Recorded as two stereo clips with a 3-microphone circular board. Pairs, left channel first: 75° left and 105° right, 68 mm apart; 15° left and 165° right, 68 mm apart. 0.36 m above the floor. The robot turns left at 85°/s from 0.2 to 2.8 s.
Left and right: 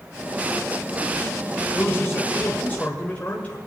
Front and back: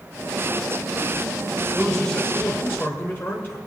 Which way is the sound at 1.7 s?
115° left.